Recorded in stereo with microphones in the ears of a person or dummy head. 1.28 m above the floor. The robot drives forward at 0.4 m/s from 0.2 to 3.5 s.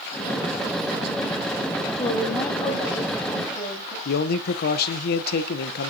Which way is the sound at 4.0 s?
55° left (ahead or behind).